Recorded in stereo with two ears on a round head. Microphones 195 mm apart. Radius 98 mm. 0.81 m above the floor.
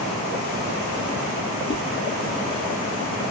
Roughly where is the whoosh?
Left.